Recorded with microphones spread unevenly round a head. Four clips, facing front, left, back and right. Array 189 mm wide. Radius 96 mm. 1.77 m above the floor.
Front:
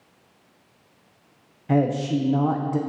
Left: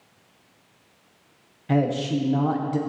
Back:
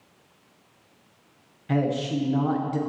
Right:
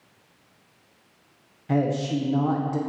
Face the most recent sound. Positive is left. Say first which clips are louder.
# left 1 dB, front 3 dB
turn(degrees=20)